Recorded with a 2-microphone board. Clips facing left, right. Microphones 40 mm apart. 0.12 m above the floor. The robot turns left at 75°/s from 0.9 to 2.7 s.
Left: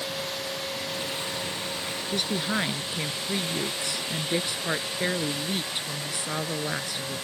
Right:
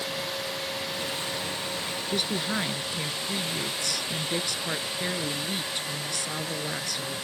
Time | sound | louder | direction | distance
2.1 | a woman speaking | left 1 dB | 170° right | ?